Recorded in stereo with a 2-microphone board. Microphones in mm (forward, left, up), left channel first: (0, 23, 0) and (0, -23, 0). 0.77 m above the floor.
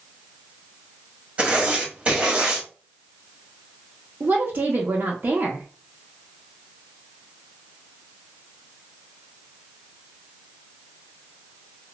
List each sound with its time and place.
1.4 s writing: 25° right (ahead or behind), 1.0 m
4.2 s a woman speaking: 45° right (ahead or behind), 0.6 m